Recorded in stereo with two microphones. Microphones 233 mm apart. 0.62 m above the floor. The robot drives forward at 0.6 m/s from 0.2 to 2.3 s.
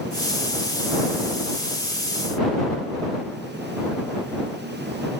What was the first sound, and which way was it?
Only background noise.